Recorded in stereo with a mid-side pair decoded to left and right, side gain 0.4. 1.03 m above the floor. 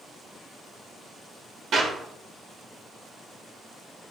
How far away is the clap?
About 3.5 m.